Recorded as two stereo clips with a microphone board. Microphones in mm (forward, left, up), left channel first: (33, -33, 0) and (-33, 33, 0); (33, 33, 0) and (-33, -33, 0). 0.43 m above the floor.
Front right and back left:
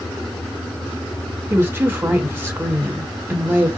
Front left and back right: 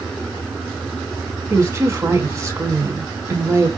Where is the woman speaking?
170° right, 1.6 m.